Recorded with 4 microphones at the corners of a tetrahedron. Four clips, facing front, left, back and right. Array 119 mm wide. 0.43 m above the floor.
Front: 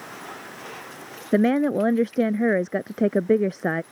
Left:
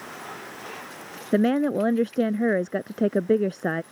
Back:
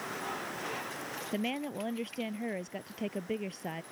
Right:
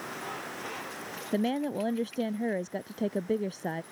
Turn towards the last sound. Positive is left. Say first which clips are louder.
# left 8 dB, front 17 dB
turn(degrees=35)